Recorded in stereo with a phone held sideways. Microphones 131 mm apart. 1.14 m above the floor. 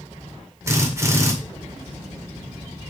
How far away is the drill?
About 2 m.